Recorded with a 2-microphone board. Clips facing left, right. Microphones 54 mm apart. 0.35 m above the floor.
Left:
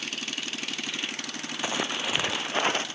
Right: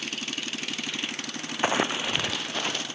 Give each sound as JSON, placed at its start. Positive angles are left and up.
{"t": 1.6, "sound": "running footsteps", "side_deg": -35}